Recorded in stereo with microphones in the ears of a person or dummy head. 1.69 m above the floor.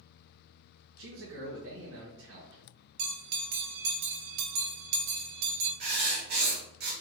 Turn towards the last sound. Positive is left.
turn(degrees=-55)  # may be behind; listen again after turning